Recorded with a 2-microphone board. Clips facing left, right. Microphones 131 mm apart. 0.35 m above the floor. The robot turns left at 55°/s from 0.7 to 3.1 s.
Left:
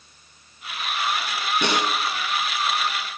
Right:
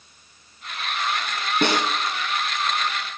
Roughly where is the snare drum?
Right.